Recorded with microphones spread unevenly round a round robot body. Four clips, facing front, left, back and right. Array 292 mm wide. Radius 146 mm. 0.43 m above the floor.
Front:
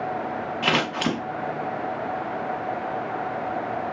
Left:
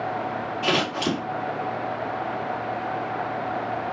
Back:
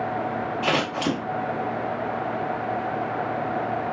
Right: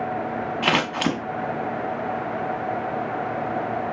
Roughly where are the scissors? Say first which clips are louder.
Right 1 dB, front 1 dB; ahead right.